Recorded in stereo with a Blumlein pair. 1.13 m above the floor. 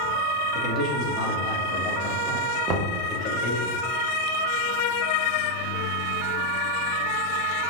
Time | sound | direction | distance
0.5 | a man speaking | 5° left | 1.4 m
2.7 | knocking | 30° right | 0.8 m